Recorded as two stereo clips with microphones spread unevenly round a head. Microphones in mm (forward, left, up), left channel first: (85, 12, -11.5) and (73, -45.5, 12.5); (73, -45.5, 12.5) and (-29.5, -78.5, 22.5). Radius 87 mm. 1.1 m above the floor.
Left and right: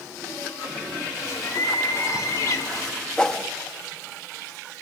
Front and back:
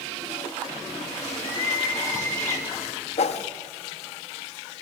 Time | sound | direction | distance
1.1 | a bird | 90° left | 2.5 m
3.2 | a whoosh | 5° right | 1.3 m